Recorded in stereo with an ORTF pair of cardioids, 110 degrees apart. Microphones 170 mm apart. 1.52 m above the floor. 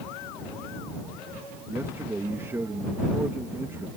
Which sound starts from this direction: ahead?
A man speaking, at 1.7 s.